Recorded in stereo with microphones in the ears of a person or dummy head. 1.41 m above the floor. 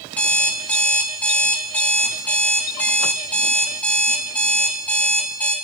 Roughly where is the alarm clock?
Centre.